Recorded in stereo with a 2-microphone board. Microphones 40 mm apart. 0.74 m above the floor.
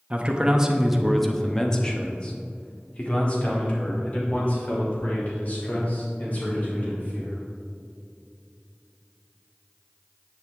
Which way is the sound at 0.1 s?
35° right (ahead or behind).